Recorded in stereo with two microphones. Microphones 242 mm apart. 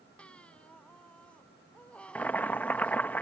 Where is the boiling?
5° left (ahead or behind).